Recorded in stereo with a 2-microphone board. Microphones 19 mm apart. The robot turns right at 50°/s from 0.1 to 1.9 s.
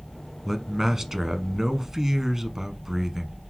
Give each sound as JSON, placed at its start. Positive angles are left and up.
{"t": 0.5, "sound": "a man speaking", "side_deg": -15, "distance_m": 1.1}